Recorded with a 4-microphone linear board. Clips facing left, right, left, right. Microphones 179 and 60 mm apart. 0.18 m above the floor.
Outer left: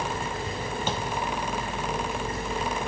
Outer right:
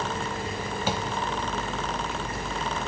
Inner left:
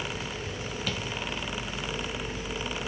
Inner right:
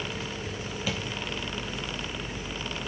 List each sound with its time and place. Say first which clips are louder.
0.9 s tapping: outer right 3 dB, inner right 2 dB; 10° right (ahead or behind), 1.3 m